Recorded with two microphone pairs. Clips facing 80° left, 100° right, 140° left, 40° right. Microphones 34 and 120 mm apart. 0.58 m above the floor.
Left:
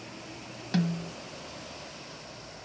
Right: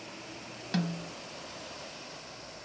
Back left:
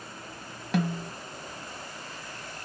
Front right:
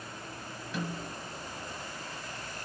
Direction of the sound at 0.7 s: 165° left.